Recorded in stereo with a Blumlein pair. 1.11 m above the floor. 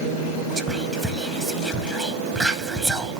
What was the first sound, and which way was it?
Whispering, 15° right.